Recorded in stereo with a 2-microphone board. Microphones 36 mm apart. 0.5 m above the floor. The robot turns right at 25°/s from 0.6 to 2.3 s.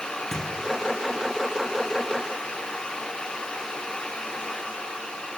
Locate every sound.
0.3 s a thud: 10° left (ahead or behind), 3 m